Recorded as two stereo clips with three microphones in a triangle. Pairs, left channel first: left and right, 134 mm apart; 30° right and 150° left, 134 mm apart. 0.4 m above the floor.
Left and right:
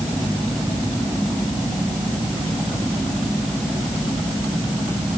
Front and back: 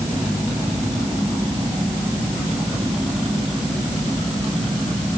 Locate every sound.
Only background noise.